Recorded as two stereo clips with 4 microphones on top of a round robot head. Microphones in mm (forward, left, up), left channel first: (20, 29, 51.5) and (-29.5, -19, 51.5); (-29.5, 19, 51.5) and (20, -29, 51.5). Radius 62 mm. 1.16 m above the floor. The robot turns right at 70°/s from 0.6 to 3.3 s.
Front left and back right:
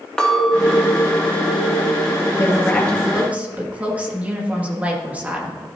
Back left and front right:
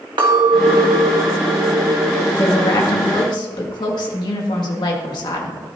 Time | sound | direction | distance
0.2 | a clink | 35° right | 2 m
2.4 | a woman speaking | 90° left | 1.9 m